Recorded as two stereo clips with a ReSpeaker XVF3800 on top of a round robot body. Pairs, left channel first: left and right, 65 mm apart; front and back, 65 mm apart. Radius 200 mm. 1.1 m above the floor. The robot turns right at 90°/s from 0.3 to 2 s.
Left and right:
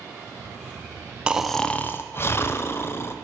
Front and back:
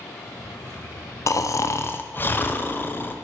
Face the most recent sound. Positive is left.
turn(degrees=45)